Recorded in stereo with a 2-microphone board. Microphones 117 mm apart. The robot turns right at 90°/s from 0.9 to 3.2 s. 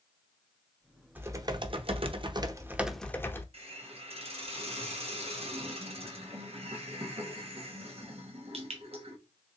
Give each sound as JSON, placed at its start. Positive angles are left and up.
{"t": 1.1, "sound": "typing on a keyboard", "azimuth_deg": -160, "distance_m": 0.5}
{"t": 3.5, "sound": "a hiss", "side_deg": -55, "distance_m": 1.0}